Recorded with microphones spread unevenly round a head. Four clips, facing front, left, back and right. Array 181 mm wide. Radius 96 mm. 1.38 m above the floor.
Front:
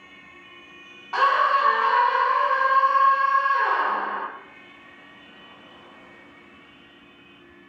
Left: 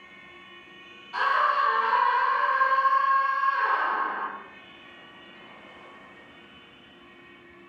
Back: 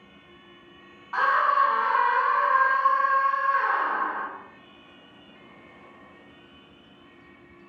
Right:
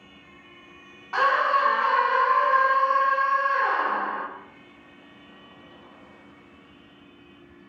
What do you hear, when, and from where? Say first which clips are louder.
1.1 s a scream: right 2 dB, front 2 dB; 50° right, 1.0 m